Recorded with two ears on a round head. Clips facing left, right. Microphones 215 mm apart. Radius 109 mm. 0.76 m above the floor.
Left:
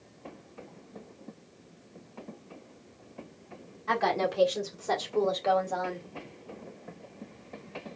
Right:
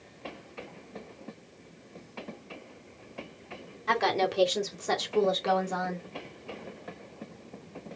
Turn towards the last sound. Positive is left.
turn(degrees=-5)  # may be behind; listen again after turning